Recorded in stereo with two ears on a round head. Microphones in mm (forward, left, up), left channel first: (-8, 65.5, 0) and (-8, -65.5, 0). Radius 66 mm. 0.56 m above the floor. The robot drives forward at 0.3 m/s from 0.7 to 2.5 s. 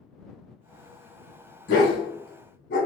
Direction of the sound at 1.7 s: 85° left.